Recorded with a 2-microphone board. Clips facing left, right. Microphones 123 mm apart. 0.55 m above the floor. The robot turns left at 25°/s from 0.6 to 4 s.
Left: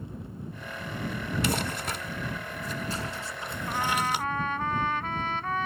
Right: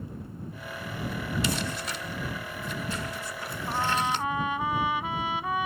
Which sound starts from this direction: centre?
A trumpet, at 3.7 s.